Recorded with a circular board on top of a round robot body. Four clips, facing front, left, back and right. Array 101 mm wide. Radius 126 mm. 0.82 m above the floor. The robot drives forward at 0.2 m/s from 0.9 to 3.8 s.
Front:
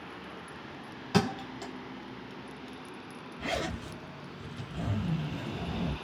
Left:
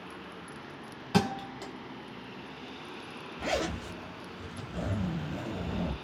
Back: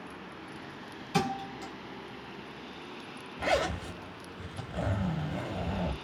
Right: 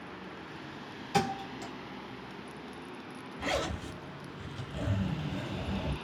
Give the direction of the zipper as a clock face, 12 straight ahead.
6 o'clock.